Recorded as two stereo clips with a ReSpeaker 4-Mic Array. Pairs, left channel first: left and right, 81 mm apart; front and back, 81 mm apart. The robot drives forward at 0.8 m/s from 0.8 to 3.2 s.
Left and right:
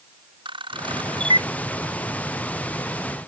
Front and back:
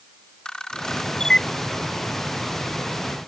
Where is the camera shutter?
80° right.